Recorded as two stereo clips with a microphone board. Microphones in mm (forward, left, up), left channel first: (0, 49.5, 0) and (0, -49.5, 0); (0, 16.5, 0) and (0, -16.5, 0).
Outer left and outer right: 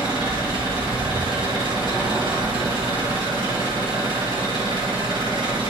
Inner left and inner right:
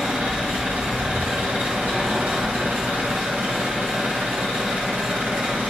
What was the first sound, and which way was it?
An engine running, 55° right (ahead or behind).